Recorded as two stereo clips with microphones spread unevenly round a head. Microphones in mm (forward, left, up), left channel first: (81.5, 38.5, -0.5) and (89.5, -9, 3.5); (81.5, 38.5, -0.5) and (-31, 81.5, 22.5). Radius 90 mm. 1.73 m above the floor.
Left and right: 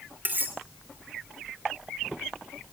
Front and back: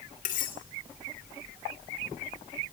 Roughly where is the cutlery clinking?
Ahead right.